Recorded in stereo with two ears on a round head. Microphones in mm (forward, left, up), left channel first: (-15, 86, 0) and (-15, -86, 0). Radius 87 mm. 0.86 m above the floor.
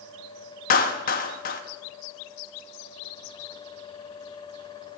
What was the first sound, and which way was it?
A clap, 45° left (ahead or behind).